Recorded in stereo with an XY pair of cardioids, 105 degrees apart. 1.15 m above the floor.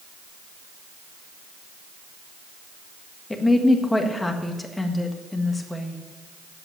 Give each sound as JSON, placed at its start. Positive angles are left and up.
{"t": 3.3, "sound": "a woman speaking", "azimuth_deg": 15, "distance_m": 1.6}